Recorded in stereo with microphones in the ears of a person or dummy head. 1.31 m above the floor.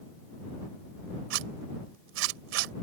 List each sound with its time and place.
1.3 s a zipper: 80° right